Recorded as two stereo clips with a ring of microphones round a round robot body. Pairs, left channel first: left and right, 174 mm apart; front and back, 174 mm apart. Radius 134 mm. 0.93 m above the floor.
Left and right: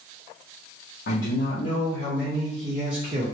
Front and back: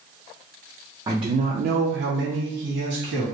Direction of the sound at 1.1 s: 110° left.